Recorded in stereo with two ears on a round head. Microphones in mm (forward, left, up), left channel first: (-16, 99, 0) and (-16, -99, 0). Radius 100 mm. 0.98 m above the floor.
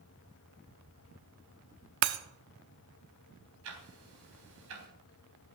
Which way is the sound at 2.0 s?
55° right (ahead or behind).